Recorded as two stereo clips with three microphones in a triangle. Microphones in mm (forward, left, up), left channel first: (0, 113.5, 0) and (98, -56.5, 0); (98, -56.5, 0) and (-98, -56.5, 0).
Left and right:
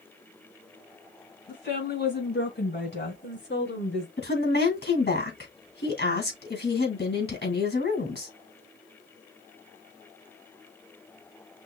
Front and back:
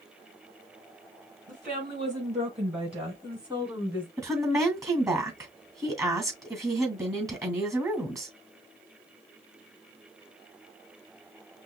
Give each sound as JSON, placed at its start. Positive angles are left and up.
{"t": 1.5, "sound": "a woman speaking", "azimuth_deg": 135, "distance_m": 3.5}
{"t": 4.2, "sound": "a woman speaking", "azimuth_deg": 110, "distance_m": 2.5}